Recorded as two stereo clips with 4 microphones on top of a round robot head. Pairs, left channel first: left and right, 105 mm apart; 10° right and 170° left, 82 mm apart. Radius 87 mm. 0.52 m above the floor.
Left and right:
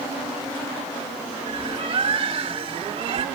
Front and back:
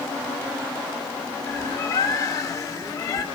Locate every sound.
1.5 s a bird: 55° right, 1.6 m